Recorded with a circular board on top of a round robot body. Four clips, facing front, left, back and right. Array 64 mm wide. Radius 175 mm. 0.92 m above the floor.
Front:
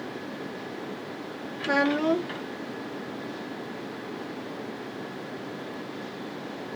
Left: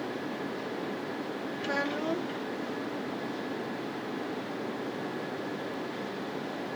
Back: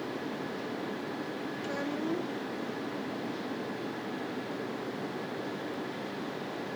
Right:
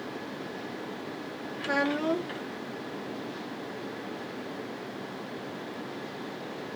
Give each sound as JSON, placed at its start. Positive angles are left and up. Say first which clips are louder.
{"t": 1.6, "sound": "a child speaking", "louder": "right 4 dB, front 12 dB", "azimuth_deg": -15}